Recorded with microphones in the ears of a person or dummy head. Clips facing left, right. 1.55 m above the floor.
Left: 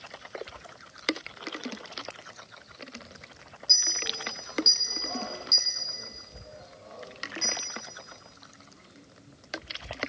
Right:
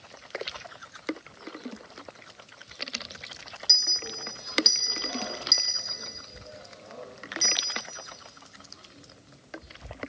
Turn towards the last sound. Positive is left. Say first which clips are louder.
# left 2 dB
turn(degrees=-20)  # may be behind; listen again after turning